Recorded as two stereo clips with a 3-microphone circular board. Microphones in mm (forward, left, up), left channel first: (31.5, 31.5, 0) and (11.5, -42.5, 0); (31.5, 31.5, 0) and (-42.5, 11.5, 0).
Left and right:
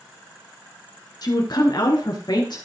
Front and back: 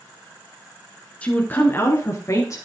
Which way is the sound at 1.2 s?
85° left.